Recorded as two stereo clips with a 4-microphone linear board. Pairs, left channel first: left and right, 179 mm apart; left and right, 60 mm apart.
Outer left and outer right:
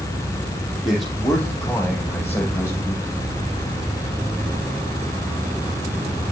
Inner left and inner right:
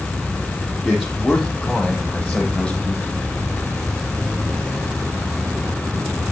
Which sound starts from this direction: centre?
A man speaking, at 0.8 s.